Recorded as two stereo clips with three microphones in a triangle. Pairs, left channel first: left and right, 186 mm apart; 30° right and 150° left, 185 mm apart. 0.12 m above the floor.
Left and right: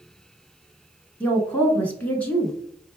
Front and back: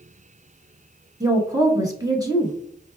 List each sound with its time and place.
1.2 s a woman speaking: 155° left, 1.1 m